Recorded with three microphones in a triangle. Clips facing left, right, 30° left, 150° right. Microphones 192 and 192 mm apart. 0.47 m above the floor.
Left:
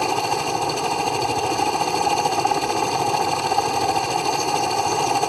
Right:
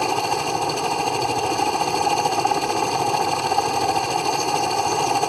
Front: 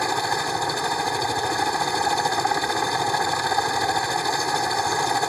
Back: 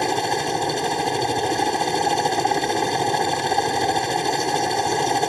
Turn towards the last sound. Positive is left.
turn(degrees=180)